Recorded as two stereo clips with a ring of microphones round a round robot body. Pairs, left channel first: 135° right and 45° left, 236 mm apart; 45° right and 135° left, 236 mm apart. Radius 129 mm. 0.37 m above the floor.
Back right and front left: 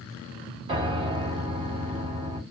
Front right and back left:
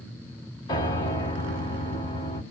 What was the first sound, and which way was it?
A piano, 10° left.